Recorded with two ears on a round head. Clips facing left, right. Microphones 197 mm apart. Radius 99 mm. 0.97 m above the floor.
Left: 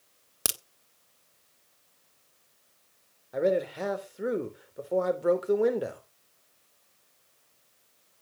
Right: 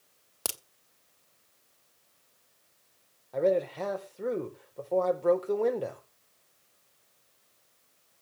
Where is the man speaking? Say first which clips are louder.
Even; 15° left (ahead or behind), 3.5 m.